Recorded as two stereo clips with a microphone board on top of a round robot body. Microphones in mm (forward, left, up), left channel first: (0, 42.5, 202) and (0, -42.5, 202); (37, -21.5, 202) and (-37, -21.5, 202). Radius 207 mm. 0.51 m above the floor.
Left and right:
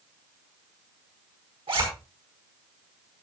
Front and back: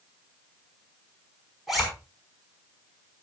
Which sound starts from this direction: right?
A zipper, at 1.7 s.